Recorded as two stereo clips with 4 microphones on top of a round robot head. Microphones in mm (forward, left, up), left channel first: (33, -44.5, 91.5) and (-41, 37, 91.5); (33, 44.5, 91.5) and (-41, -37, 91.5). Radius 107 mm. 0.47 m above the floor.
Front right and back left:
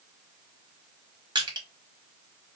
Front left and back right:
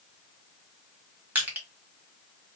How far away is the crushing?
About 1.5 m.